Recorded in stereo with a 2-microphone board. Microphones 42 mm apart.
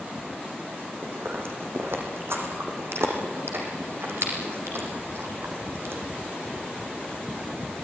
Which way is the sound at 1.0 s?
75° right (ahead or behind).